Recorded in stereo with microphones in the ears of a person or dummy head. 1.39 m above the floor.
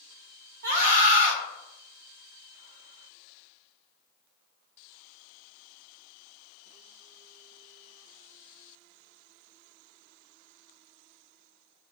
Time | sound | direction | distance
0.6 | a scream | 50° right (ahead or behind) | 1.0 m